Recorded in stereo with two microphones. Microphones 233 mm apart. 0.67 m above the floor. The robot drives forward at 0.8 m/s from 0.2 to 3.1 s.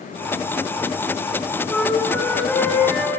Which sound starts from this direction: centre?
A flute, at 1.7 s.